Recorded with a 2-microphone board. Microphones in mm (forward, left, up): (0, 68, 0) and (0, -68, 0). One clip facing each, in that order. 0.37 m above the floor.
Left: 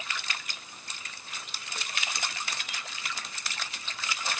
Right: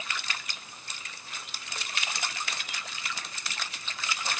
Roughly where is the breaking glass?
I don't hear breaking glass.